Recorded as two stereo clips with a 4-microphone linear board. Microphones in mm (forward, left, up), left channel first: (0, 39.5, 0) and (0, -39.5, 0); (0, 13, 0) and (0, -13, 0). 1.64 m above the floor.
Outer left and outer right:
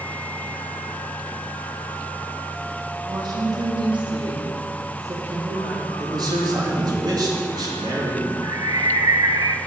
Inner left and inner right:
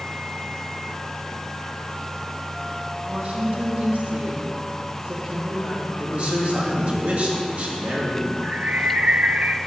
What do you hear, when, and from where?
3.0 s a woman speaking: 55° right (ahead or behind), 3 m; by 7.0 s centre (ahead or behind), 4 m
6.0 s a man speaking: 60° right (ahead or behind), 2.5 m
8.4 s a bird: 55° right (ahead or behind), 0.5 m